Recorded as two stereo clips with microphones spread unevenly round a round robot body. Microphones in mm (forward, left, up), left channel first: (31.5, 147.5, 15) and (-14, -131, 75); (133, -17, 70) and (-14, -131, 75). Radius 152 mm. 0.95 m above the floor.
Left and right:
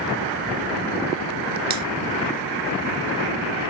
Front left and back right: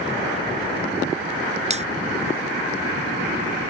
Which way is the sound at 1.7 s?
90° right.